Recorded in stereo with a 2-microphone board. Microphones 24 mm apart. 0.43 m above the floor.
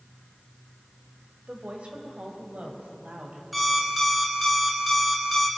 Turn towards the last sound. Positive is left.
turn(degrees=0)  # may be behind; listen again after turning